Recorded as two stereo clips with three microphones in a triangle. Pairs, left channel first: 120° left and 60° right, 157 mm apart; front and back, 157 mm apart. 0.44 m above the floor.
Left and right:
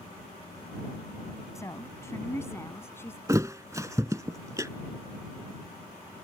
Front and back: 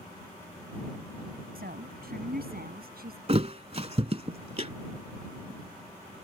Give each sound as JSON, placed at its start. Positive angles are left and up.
{"t": 1.6, "sound": "a woman speaking", "azimuth_deg": -170}
{"t": 3.3, "sound": "a thud", "azimuth_deg": -130}